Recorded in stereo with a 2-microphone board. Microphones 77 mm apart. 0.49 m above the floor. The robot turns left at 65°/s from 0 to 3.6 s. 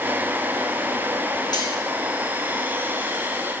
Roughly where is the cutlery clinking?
Left.